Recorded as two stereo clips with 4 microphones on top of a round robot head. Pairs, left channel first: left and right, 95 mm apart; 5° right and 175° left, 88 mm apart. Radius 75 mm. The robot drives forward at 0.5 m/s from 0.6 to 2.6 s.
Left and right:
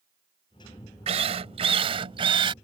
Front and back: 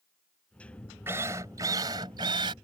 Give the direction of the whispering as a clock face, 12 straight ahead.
No whispering in this recording.